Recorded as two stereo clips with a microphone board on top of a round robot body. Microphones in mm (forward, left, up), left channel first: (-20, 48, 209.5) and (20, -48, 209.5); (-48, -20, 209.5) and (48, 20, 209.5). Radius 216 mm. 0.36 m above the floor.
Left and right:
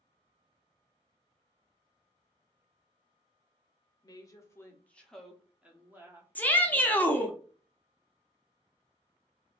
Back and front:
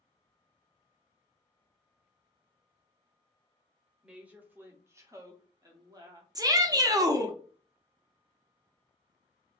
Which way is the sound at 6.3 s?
45° left.